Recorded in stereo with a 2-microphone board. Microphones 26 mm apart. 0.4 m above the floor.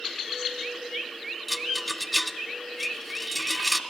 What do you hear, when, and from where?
1.5 s a rattle: centre (ahead or behind), 0.5 m